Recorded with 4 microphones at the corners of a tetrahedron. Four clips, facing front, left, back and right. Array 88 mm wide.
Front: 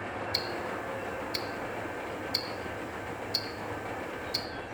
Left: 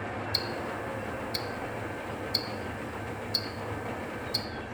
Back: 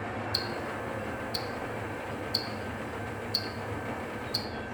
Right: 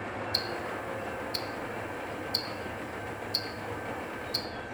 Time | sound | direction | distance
0.3 | ticking | 25° left | 0.7 m